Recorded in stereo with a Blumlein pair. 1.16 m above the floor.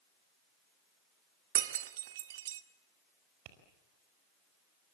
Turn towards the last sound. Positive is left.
turn(degrees=-40)